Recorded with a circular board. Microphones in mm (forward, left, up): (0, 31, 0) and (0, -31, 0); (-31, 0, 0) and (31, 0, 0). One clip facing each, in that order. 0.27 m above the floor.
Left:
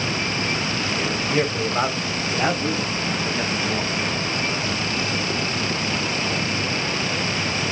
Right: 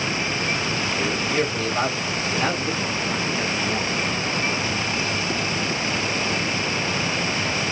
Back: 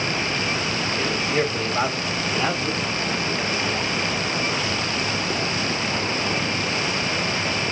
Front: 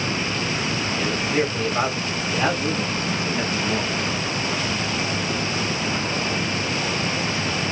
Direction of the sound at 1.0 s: 130° left.